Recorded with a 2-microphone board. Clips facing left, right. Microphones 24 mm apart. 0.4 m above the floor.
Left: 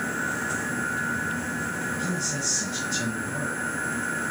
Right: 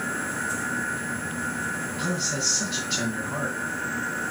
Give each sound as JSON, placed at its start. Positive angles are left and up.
{"t": 2.0, "sound": "a man speaking", "side_deg": -60, "distance_m": 4.0}